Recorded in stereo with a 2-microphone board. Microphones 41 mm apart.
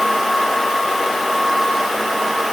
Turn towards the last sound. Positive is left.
No sound to turn to.